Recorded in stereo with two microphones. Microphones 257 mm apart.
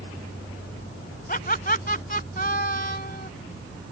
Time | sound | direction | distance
1.3 | laughter | 35° left (ahead or behind) | ?